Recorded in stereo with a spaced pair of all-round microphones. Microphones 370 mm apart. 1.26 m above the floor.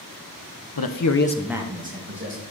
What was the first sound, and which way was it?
A man speaking, 75° left (ahead or behind).